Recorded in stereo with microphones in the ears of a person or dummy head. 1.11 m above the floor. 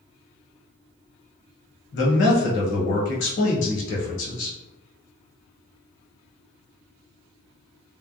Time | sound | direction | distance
1.9 | a man speaking | 60° left (ahead or behind) | 1.0 m